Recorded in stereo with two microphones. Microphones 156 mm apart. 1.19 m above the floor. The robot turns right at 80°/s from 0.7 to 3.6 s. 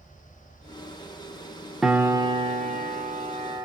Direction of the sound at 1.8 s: Straight behind.